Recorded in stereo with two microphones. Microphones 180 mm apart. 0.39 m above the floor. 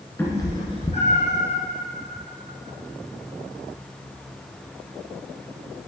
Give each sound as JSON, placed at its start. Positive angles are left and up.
{"t": 0.2, "sound": "a cat meowing", "side_deg": 10, "distance_m": 1.4}